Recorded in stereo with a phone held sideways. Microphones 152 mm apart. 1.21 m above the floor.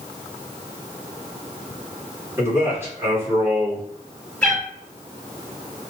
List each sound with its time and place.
2.4 s a man speaking: 15° right (ahead or behind), 2 m
4.4 s a cat meowing: 5° left (ahead or behind), 2 m